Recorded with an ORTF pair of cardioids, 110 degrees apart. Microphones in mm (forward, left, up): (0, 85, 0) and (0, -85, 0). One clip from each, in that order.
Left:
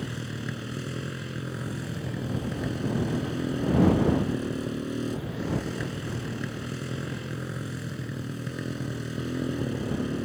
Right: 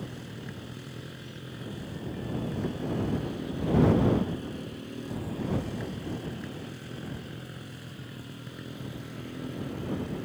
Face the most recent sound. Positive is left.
turn(degrees=50)